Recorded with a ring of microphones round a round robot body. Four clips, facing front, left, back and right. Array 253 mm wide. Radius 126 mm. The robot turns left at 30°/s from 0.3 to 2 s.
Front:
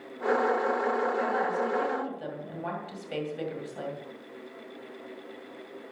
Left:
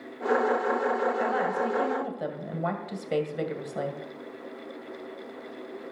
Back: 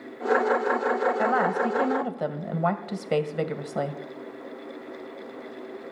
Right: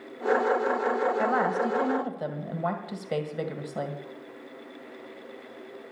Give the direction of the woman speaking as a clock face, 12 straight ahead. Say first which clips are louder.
Right 2 dB, back 5 dB; 5 o'clock.